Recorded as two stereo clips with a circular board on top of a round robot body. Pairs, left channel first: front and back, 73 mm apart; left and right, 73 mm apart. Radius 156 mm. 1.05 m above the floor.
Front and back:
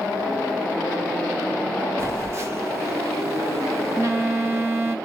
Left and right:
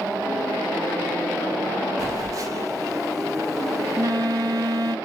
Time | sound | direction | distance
2.0 | a phone buzzing | 130° right | 1.1 m